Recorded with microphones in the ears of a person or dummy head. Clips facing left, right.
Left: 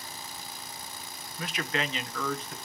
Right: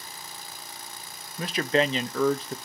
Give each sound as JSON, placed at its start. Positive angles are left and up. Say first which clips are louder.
{"t": 1.4, "sound": "a man speaking", "louder": "right 9 dB", "side_deg": -30, "distance_m": 0.6}